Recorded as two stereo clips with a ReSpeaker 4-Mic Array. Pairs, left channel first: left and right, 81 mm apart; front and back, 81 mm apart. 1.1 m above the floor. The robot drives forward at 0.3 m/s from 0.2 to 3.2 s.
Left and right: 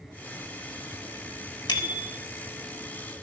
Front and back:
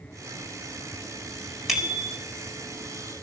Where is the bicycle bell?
90° left, 3.5 m; by 2.1 s 95° left, 3.5 m.